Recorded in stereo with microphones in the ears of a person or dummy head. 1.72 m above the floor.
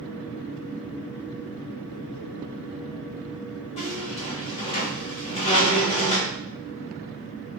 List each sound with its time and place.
3.8 s a squeak: 25° left (ahead or behind), 0.9 m